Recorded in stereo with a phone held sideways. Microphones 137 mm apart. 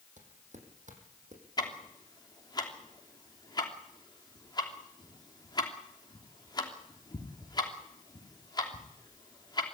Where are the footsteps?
65° right (ahead or behind), 4 m; by 1.4 s 60° right (ahead or behind), 4.5 m.